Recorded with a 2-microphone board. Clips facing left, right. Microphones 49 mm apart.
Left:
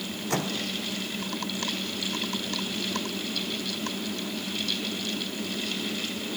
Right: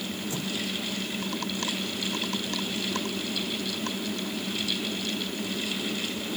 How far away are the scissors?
I don't hear scissors.